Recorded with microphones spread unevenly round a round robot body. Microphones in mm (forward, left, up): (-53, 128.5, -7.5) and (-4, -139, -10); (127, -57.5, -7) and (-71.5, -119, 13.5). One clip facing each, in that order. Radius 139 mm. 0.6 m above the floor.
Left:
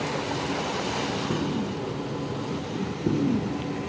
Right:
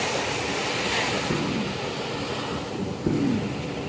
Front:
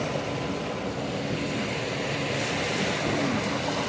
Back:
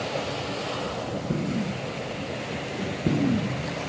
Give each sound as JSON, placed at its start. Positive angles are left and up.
{"t": 1.3, "sound": "an explosion", "azimuth_deg": -165, "distance_m": 1.3}